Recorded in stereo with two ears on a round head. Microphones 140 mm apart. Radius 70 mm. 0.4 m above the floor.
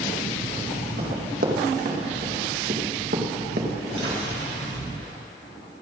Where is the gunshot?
75° right (ahead or behind), 4.5 m.